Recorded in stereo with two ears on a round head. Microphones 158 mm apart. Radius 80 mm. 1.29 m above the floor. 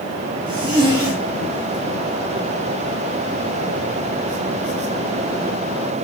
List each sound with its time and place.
0.5 s a zipper: 25° right (ahead or behind), 2.5 m